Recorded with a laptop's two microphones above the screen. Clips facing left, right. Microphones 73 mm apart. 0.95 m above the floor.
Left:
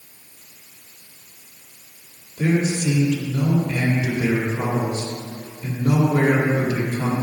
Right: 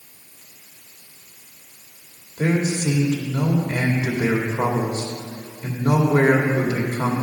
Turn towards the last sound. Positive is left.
turn(degrees=-40)  # may be behind; listen again after turning